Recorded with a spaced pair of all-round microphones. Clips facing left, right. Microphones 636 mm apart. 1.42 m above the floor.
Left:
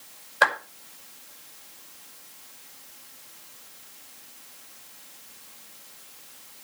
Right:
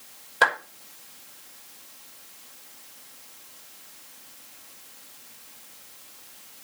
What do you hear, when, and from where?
0.4 s a clap: 60° right (ahead or behind), 6 m